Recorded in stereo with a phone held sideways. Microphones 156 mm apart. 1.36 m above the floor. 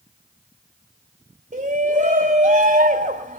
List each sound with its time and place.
1.5 s a shout: 65° right (ahead or behind), 2.5 m